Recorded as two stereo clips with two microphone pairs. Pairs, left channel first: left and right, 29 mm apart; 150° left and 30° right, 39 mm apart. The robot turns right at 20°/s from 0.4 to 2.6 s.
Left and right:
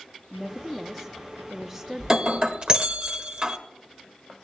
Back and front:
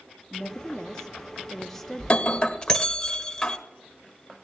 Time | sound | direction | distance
0.3 | a woman speaking | 170° right | 0.6 m
2.0 | breaking glass | 150° right | 1.2 m